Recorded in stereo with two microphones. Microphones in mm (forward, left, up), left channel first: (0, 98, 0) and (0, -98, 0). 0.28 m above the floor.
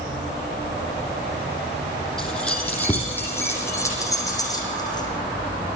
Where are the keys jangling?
5° left (ahead or behind), 8 m; by 5.1 s 20° left (ahead or behind), 11.5 m.